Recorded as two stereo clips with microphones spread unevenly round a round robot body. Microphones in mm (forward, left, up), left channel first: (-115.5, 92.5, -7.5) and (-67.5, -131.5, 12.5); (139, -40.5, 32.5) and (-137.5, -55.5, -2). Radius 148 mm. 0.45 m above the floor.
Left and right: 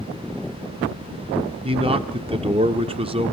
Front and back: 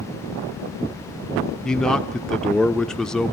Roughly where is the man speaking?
Right.